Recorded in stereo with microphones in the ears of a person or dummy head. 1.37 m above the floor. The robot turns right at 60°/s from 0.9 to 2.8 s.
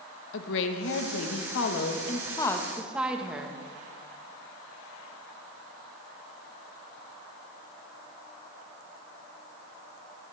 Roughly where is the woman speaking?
Left.